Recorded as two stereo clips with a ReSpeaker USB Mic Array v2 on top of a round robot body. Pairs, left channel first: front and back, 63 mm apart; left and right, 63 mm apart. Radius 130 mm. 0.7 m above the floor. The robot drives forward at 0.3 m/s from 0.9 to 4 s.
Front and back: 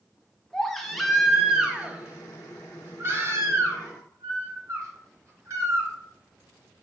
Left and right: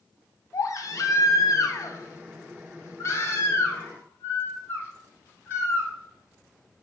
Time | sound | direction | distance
0.5 | a baby crying | 85° left | 0.8 m